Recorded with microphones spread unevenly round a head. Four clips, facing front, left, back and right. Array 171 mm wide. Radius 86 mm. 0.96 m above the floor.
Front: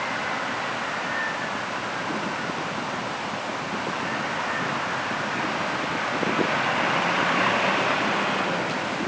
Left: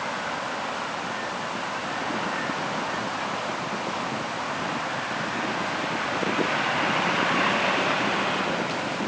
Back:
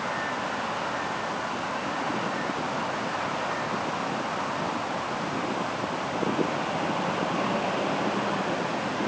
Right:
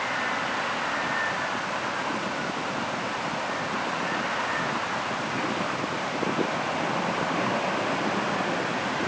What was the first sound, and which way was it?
Only background noise.